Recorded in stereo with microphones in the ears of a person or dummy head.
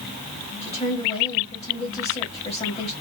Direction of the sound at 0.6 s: 30° left (ahead or behind).